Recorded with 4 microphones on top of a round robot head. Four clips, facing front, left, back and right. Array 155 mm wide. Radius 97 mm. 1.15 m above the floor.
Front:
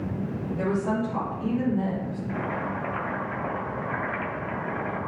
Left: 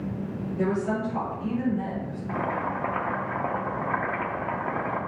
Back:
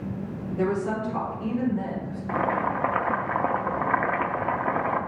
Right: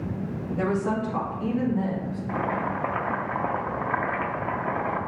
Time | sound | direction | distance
0.6 | a woman speaking | 80° right | 2.5 m
2.3 | boiling | 175° right | 0.7 m